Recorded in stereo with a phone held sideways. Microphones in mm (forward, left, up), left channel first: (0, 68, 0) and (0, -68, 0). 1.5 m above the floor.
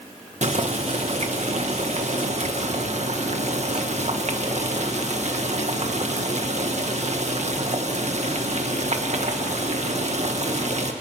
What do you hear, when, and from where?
0.4 s boiling: 55° right (ahead or behind), 1.6 m